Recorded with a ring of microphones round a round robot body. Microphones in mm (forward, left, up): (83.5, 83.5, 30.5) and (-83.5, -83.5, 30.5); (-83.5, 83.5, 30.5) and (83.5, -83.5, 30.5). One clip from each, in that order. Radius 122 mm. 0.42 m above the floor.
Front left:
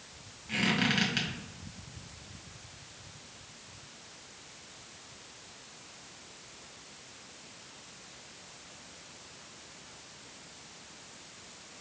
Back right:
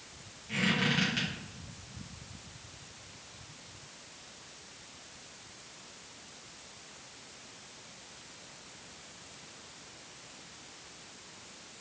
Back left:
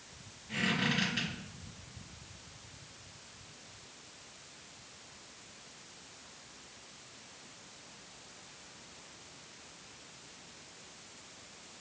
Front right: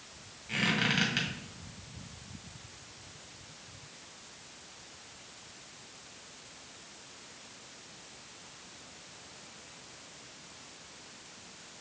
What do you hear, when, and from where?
0.5 s a squeak: 15° right, 1.8 m